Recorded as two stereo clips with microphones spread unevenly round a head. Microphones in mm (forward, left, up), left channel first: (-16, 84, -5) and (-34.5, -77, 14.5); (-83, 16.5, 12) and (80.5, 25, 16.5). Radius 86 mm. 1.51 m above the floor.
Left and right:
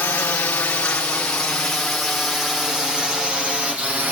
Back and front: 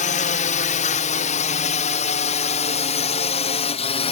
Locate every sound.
0.0 s a drone: 155° left; by 4.1 s straight behind